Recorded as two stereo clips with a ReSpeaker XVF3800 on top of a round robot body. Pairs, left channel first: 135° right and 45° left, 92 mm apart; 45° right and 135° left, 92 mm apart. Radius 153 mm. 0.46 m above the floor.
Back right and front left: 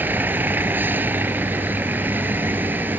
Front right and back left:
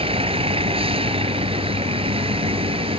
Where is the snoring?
No snoring in this recording.